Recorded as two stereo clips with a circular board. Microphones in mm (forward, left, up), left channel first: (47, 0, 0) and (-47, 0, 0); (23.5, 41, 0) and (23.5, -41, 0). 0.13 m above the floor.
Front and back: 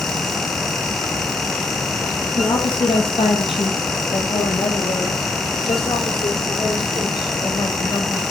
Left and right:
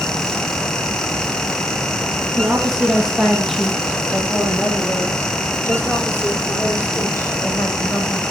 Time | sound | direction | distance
2.3 | a woman speaking | 10° right | 3 m